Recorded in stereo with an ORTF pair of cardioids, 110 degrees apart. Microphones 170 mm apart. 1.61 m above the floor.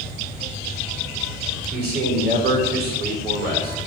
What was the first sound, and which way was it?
A man speaking, 65° right.